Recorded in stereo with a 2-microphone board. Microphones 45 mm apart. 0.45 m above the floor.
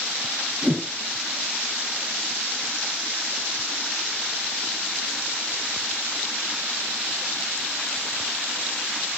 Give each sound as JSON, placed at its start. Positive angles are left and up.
{"t": 0.6, "sound": "a whoosh", "side_deg": -40, "distance_m": 5.5}